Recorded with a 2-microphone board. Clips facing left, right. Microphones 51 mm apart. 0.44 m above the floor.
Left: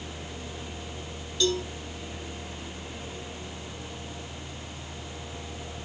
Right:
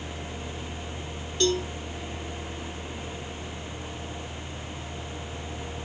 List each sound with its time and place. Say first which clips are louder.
1.4 s a cowbell: right 2 dB; 40° right (ahead or behind), 3.5 m